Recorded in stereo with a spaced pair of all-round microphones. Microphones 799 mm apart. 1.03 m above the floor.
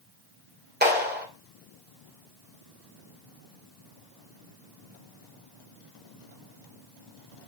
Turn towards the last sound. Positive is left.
turn(degrees=-10)  # may be behind; listen again after turning